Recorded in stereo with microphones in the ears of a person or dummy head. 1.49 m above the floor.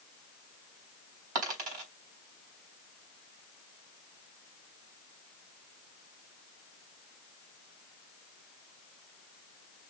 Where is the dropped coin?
50° right (ahead or behind), 2.5 m.